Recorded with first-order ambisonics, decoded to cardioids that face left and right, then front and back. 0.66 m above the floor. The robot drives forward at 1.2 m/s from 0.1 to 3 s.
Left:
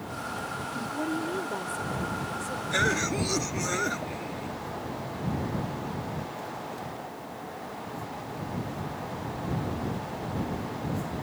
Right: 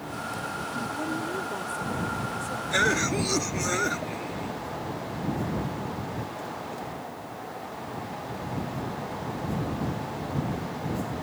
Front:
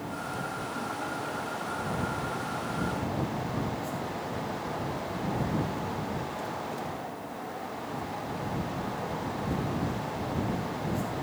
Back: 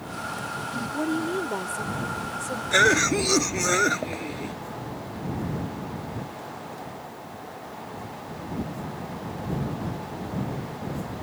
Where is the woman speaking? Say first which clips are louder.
Even, back 6 dB; 165° left; by 2.6 s 175° left.